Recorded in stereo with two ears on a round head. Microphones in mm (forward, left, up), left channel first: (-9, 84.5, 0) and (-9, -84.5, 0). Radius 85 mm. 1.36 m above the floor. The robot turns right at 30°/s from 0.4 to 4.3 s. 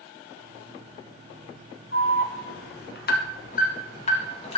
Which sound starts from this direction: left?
An alarm, at 1.9 s.